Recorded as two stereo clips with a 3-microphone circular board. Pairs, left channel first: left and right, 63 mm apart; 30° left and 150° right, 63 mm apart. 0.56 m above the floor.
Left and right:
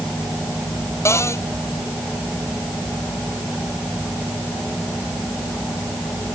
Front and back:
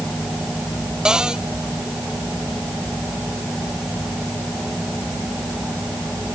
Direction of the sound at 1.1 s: 130° left.